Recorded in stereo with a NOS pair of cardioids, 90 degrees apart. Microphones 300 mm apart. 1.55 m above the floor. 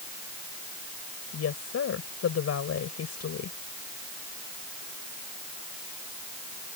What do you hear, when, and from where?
1.3 s a woman speaking: 55° left